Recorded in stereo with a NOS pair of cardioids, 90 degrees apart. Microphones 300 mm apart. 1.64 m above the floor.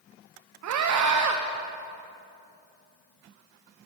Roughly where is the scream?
Ahead right.